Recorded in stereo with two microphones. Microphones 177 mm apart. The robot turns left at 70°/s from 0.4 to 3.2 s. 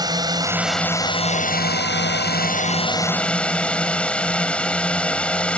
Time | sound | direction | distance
0.0 | a drone | 160° right | ?